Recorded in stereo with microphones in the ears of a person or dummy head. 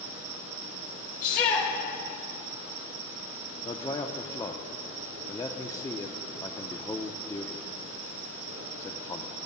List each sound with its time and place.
0.0 s an insect: 75° right (ahead or behind), 4 m
1.2 s a shout: 50° left (ahead or behind), 1.9 m
3.6 s a man speaking: 10° left (ahead or behind), 0.6 m